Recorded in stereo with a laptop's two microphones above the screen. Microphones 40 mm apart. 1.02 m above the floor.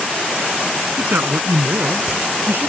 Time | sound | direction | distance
1.0 | a man speaking | 65° right (ahead or behind) | ?